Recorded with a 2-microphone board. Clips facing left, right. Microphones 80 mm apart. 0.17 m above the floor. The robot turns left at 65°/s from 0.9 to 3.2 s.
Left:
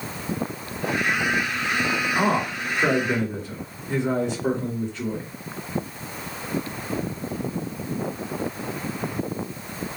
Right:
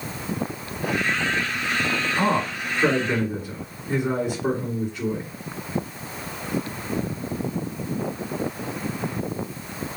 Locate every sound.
2.1 s a man speaking: 55° left, 2.5 m; by 5.3 s 10° right, 2.5 m